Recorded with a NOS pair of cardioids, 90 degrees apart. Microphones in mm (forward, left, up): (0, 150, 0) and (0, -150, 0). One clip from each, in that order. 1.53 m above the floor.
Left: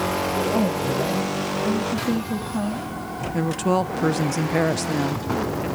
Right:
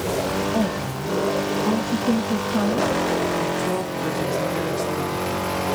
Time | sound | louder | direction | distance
0.5 | a woman speaking | left 2 dB | 10° left | 2.5 m
3.3 | a woman speaking | left 1 dB | 45° left | 1.2 m